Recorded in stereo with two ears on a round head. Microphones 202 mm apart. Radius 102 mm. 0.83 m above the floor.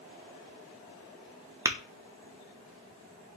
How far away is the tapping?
About 0.7 m.